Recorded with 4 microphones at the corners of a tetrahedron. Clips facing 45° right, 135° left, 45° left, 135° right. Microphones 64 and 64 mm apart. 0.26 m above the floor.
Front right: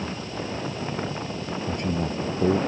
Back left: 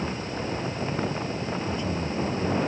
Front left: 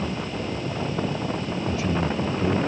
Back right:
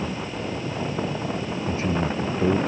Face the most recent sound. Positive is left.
turn(degrees=-80)